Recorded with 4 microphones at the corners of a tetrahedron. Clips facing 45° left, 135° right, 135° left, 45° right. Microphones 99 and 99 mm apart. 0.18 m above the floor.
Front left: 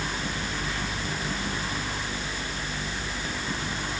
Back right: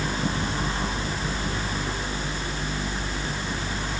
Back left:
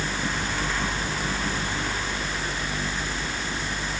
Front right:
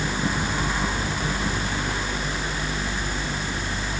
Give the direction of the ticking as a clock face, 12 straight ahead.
I don't hear ticking.